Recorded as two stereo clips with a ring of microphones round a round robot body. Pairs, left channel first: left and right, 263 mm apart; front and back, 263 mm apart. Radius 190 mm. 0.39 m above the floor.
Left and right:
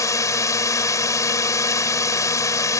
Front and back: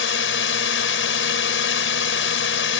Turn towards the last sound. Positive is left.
turn(degrees=15)